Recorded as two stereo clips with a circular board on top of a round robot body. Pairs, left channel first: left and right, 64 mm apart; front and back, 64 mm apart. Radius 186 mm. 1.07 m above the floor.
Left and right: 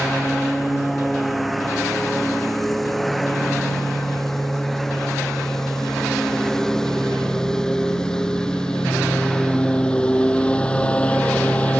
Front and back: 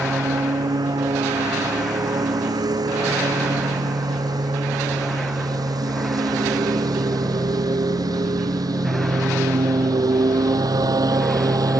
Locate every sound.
0.0 s a lawn mower: straight behind; by 11.8 s 160° left